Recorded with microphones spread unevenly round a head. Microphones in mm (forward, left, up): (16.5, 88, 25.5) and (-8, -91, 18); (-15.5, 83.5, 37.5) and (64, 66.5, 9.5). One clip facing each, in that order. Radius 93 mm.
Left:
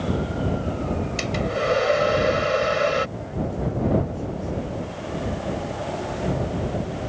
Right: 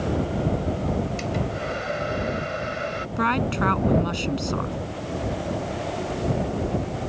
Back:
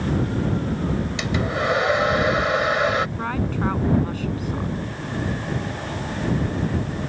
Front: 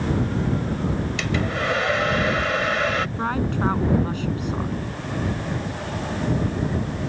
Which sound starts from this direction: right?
A woman speaking, at 3.2 s.